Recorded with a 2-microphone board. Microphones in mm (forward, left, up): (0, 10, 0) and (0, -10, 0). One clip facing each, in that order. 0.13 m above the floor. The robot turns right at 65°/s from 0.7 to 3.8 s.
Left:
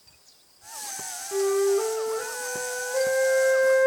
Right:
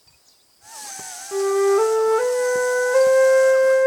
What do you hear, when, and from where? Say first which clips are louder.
1.3 s a flute: right 5 dB; 160° right, 1.1 m; by 3.9 s 5° left, 1.1 m